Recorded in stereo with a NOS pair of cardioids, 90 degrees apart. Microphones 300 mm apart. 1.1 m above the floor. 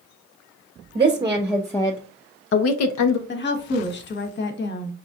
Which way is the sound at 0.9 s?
20° right.